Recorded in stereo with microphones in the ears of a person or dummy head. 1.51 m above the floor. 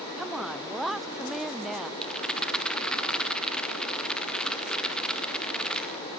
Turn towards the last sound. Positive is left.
turn(degrees=0)  # may be behind; listen again after turning